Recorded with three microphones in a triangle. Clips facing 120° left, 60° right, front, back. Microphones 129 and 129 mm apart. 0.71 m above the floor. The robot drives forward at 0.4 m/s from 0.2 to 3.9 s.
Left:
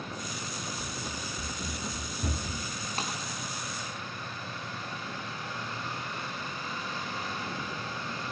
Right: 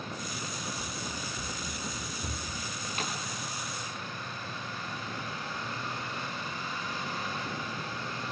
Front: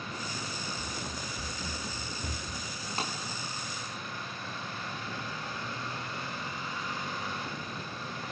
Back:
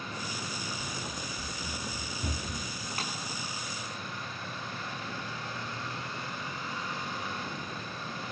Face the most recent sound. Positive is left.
turn(degrees=65)